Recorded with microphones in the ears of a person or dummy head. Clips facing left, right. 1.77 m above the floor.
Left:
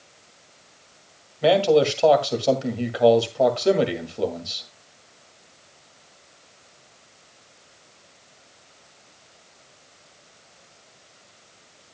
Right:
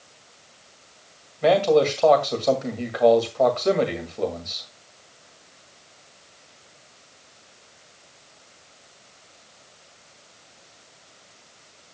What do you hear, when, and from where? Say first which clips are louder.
1.4 s a man speaking: even; 5° left (ahead or behind), 1.9 m